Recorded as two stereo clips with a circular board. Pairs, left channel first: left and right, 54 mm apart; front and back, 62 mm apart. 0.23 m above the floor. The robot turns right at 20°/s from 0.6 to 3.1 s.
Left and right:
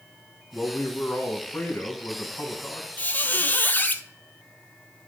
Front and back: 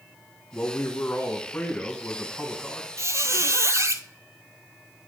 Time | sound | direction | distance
0.5 | a man speaking | 40° left | 1.6 m
3.0 | a squeak | 140° left | 0.6 m